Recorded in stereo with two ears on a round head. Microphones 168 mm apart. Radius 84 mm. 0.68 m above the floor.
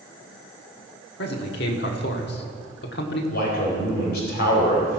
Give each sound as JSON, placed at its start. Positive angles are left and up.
{"t": 1.2, "sound": "a man speaking", "side_deg": 60, "distance_m": 1.3}
{"t": 3.3, "sound": "a man speaking", "side_deg": 60, "distance_m": 3.0}